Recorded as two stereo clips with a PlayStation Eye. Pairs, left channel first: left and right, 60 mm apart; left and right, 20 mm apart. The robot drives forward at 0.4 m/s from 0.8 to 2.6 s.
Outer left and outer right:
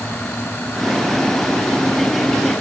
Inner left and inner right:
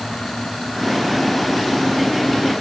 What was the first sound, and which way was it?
Only background noise.